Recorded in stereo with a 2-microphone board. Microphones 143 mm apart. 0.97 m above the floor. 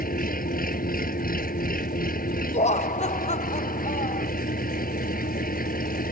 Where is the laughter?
50° left (ahead or behind).